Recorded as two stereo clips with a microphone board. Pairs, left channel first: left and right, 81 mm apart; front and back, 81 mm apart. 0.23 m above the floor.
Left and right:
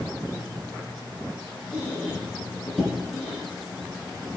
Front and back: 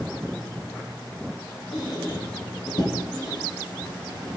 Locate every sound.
1.7 s a squeak: straight ahead, 4 m